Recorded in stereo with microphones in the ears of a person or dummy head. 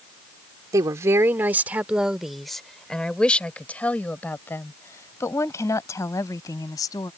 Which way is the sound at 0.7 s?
20° right (ahead or behind).